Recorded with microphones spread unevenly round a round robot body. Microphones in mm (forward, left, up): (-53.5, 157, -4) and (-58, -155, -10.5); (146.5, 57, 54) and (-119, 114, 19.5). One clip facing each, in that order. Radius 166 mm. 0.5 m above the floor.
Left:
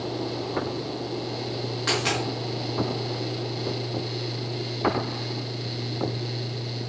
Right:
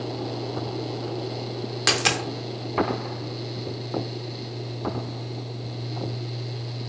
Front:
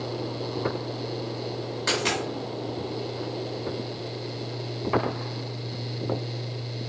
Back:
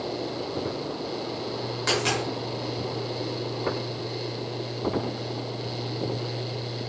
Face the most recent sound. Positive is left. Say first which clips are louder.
# even, back 1 dB
turn(degrees=-110)